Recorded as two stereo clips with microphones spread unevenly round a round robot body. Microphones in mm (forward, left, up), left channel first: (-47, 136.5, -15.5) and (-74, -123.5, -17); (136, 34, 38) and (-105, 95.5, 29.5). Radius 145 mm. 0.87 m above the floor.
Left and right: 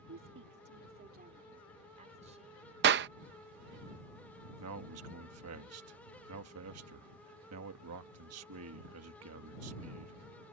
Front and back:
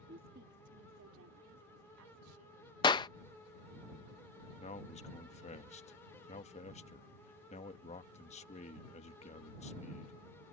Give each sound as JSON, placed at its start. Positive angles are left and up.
{"t": 0.1, "sound": "a woman speaking", "azimuth_deg": -135}
{"t": 2.8, "sound": "a clap", "azimuth_deg": -80}
{"t": 4.6, "sound": "a man speaking", "azimuth_deg": -75}